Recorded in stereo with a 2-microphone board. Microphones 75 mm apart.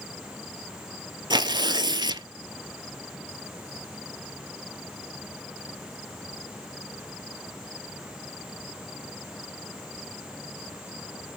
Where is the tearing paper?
75° right (ahead or behind), 0.6 m.